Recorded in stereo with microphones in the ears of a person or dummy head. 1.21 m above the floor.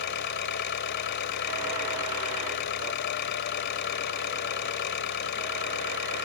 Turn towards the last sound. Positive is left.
turn(degrees=55)  # may be behind; listen again after turning